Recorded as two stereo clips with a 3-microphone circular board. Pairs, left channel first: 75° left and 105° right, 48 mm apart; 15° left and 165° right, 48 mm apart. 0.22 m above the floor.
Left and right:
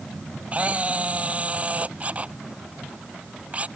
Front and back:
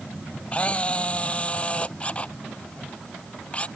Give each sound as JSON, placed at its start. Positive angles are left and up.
{"t": 0.5, "sound": "a camera shutter", "azimuth_deg": -45}